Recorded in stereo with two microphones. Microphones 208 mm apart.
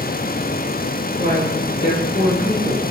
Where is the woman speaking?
60° left (ahead or behind), 4.5 m; by 2.8 s 45° left (ahead or behind), 3 m.